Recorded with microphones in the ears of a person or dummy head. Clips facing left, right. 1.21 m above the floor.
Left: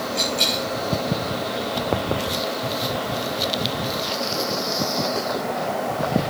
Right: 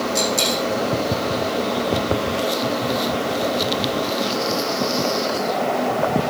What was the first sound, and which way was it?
A dropped coin, 70° right (ahead or behind).